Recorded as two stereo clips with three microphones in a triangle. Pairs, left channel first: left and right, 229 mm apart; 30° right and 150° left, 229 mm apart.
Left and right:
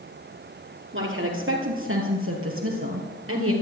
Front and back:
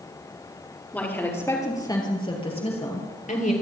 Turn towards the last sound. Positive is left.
turn(degrees=-85)